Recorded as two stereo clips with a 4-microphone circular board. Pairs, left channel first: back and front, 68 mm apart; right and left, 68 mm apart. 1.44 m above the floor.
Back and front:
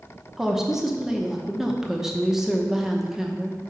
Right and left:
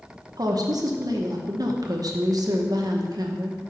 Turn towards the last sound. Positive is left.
turn(degrees=85)